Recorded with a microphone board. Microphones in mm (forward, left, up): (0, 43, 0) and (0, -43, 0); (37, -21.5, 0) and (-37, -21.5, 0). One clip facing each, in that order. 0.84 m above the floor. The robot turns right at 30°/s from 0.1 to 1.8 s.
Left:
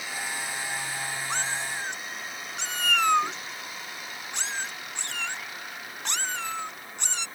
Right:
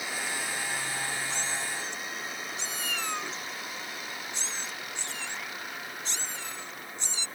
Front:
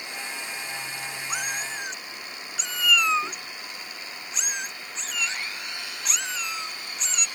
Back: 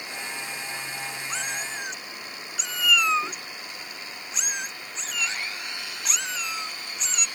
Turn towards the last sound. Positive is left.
turn(degrees=90)